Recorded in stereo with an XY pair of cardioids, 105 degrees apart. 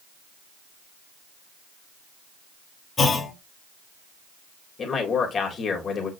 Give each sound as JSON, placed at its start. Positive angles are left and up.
{"t": 3.0, "sound": "a clunk", "azimuth_deg": 40, "distance_m": 3.0}
{"t": 4.8, "sound": "a man speaking", "azimuth_deg": 50, "distance_m": 3.5}